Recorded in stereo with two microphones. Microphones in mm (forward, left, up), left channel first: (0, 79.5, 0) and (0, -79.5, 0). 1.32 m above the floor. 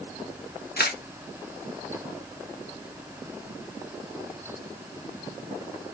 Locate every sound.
0.8 s a camera shutter: 80° left, 0.7 m